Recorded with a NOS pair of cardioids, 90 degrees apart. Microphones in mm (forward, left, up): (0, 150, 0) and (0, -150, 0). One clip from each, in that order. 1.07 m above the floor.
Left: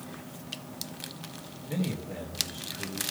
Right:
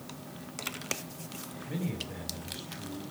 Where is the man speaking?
60° left, 4.5 m.